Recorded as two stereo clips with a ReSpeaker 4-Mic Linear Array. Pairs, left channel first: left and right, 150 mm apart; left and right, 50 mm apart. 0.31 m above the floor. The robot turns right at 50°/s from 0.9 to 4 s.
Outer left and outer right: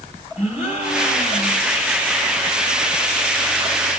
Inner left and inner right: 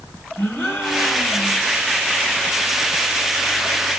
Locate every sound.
0.4 s a gasp: 50° left, 3.5 m; by 1.7 s 85° left, 3.5 m